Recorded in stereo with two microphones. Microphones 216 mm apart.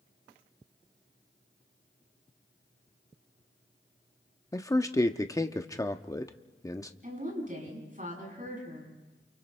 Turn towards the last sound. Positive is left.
turn(degrees=-40)  # may be behind; listen again after turning